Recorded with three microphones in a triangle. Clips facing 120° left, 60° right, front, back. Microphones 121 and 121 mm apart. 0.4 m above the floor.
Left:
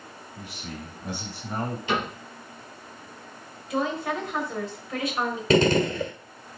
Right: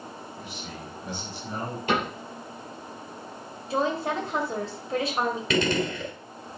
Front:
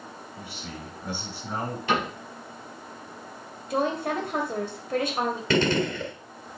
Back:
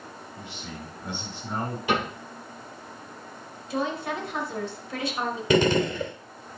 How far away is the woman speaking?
About 2 m.